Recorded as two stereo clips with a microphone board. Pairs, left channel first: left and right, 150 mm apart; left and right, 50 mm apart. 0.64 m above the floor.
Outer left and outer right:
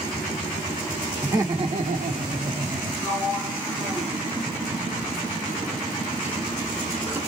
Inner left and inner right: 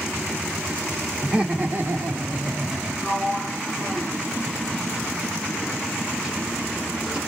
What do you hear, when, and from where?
1.2 s laughter: 15° right (ahead or behind), 1.4 m; by 2.9 s 55° right (ahead or behind), 2 m
3.0 s a sliding door: 15° right (ahead or behind), 1.1 m